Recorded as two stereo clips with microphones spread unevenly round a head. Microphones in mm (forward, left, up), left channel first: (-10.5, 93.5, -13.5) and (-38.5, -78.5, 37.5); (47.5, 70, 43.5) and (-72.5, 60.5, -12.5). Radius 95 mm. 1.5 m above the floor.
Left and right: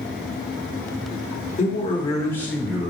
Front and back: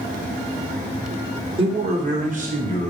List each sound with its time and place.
1.6 s a man speaking: 135° left, 1.6 m; by 2.9 s straight behind, 2 m